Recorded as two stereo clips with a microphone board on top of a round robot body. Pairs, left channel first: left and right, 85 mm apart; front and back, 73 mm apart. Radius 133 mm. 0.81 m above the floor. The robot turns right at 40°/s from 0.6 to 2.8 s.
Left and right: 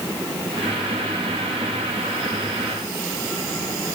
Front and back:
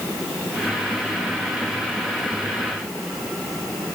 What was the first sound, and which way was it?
Only background noise.